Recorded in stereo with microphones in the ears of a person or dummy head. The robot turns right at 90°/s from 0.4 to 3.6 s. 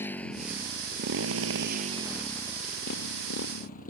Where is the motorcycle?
10° left (ahead or behind); by 3.9 s 45° left (ahead or behind).